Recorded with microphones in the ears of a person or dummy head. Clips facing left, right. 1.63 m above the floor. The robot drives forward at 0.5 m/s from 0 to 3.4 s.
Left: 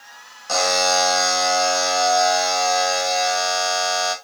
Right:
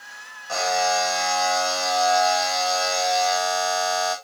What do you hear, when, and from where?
0.5 s a buzzer: 65° left (ahead or behind), 1.1 m; by 4.2 s 30° left (ahead or behind), 2 m